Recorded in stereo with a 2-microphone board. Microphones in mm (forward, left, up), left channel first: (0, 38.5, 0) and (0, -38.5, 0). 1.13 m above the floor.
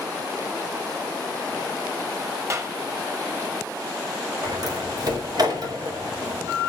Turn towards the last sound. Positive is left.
turn(degrees=-55)  # may be behind; listen again after turning